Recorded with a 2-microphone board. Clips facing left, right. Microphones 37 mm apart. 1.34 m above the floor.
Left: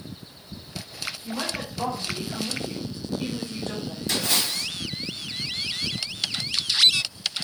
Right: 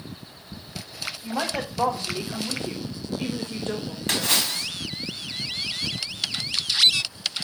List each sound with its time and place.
1.2 s a woman speaking: 85° right, 1.7 m; by 4.7 s 25° right (ahead or behind), 1.6 m
4.1 s a splash: 70° right (ahead or behind), 1.2 m